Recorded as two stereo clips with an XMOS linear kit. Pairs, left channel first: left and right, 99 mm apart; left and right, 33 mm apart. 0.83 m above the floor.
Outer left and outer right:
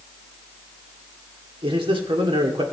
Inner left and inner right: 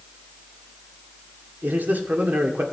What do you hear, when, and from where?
1.6 s a man speaking: 65° right (ahead or behind), 1.8 m